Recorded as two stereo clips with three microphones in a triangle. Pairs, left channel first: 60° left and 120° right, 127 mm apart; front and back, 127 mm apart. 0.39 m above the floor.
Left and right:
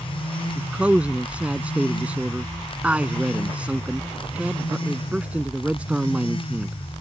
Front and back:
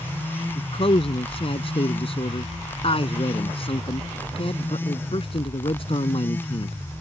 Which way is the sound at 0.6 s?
40° right.